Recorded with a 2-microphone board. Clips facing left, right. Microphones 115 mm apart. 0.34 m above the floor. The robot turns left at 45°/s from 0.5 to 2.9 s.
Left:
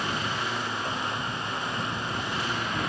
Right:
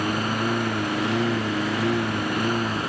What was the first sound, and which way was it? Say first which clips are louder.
A lawn mower: right 6 dB; 45° right.